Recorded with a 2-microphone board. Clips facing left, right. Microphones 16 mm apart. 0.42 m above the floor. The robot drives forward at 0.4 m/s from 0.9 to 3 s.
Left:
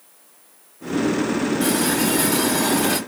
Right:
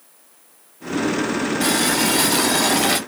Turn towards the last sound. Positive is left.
turn(degrees=-65)  # may be behind; listen again after turning